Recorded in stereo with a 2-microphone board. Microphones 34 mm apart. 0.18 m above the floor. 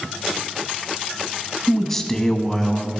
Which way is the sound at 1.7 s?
10° left (ahead or behind).